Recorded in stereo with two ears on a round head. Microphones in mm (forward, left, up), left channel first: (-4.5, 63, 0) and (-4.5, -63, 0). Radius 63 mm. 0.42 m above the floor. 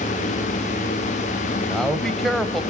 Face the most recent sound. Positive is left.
turn(degrees=0)  # may be behind; listen again after turning